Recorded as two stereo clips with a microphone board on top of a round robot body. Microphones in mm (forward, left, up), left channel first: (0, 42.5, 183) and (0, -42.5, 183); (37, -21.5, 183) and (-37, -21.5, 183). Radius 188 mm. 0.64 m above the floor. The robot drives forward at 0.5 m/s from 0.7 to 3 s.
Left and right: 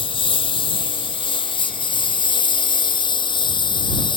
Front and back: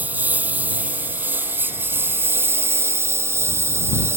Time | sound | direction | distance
0.0 | a lawn mower | 110° left | ?